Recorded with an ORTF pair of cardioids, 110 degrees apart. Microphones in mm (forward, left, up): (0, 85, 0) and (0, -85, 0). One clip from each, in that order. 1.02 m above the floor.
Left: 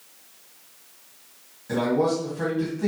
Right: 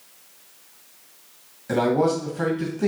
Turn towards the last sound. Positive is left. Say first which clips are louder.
# right 2 dB
turn(degrees=-30)